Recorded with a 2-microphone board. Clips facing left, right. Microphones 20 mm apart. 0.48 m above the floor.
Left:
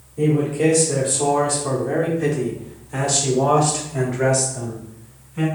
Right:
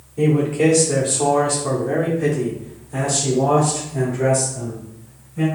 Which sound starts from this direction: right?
A man speaking, at 0.2 s.